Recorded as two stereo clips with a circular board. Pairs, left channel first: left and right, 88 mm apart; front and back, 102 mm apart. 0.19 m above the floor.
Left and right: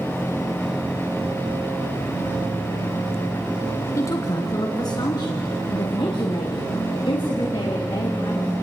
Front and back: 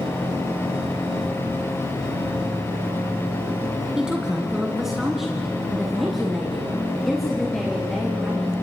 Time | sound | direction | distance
4.0 | a woman speaking | 105° left | 1.4 m